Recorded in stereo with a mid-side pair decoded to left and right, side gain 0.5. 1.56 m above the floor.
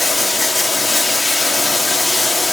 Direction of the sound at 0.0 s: 20° left.